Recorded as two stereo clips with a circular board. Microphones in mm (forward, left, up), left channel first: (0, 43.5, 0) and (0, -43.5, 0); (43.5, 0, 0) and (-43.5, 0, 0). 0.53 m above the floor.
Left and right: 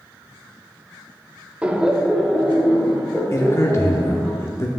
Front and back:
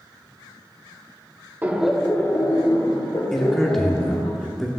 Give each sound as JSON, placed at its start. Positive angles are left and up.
{"t": 1.6, "sound": "laughter", "azimuth_deg": -145, "distance_m": 0.8}
{"t": 3.3, "sound": "a man speaking", "azimuth_deg": 85, "distance_m": 0.8}